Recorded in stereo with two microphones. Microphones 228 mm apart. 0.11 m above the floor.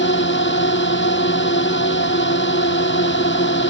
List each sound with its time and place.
0.0 s a drone: 55° left (ahead or behind)